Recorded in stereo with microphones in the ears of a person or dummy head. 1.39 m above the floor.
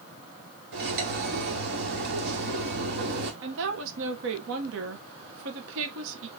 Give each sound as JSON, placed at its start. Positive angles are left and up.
{"t": 0.7, "sound": "cutlery clinking", "side_deg": -65, "distance_m": 1.8}
{"t": 3.4, "sound": "a woman speaking", "side_deg": -70, "distance_m": 1.1}